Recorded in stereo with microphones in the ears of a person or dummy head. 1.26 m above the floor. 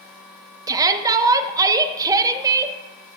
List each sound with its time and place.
0.7 s a shout: 15° right (ahead or behind), 1.0 m